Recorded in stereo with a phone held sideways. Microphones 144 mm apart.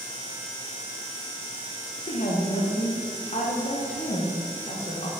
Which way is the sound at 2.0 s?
55° left (ahead or behind).